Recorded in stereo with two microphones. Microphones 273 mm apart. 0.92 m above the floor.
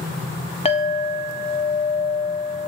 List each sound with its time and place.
0.7 s a clink: 20° left (ahead or behind), 0.6 m